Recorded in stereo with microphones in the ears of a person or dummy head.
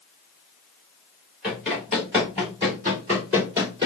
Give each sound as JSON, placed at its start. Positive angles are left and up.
{"t": 1.4, "sound": "running footsteps", "side_deg": -5, "distance_m": 1.8}